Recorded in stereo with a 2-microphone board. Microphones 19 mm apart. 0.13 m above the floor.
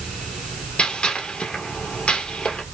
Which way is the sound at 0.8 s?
55° left (ahead or behind).